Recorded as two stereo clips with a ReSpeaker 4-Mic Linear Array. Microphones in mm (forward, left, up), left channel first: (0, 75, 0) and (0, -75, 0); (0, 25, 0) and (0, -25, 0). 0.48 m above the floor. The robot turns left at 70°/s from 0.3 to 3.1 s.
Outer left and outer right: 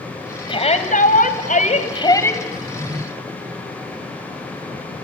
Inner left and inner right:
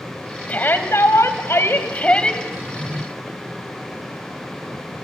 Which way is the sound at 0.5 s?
145° left.